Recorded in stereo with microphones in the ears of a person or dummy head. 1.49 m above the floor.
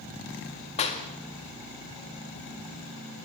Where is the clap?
35° left (ahead or behind), 2.0 m.